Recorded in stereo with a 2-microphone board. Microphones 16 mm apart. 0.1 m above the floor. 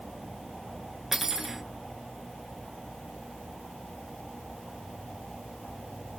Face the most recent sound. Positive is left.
turn(degrees=-20)  # may be behind; listen again after turning